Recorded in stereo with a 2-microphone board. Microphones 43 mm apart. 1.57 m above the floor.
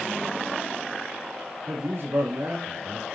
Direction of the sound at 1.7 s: 65° right (ahead or behind).